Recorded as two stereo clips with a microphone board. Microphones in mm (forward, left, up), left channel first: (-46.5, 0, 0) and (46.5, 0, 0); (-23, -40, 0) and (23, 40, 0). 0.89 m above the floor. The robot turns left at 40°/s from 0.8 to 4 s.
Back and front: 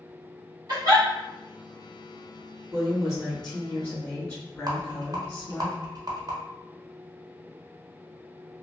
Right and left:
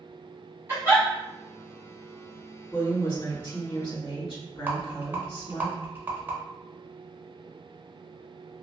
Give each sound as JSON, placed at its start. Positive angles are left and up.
{"t": 0.7, "sound": "a giggle", "azimuth_deg": 10, "distance_m": 1.1}
{"t": 2.7, "sound": "a woman speaking", "azimuth_deg": -65, "distance_m": 1.8}
{"t": 4.7, "sound": "a rattle", "azimuth_deg": 5, "distance_m": 0.6}